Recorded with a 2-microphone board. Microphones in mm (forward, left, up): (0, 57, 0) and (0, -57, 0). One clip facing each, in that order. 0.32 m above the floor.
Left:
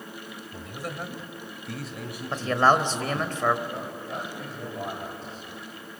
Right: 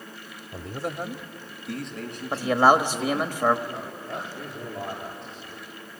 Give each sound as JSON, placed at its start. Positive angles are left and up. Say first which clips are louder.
{"t": 0.5, "sound": "a man speaking", "louder": "right 5 dB", "side_deg": -40, "distance_m": 1.1}
{"t": 2.3, "sound": "a man speaking", "louder": "right 2 dB", "side_deg": -10, "distance_m": 1.0}
{"t": 3.7, "sound": "a man speaking", "louder": "even", "side_deg": 0, "distance_m": 9.0}